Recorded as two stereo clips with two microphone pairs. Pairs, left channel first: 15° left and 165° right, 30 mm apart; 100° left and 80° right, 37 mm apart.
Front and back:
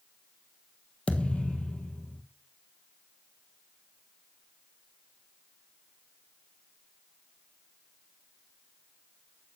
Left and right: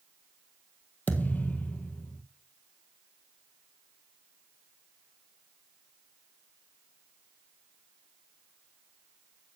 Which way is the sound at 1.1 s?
65° left.